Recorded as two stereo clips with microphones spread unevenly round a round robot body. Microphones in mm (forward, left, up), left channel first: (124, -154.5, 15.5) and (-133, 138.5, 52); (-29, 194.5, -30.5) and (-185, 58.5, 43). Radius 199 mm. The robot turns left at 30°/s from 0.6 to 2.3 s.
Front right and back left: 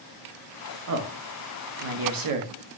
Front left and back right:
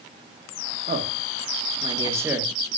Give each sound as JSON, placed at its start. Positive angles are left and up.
{"t": 0.9, "sound": "a man speaking", "azimuth_deg": 165, "distance_m": 1.1}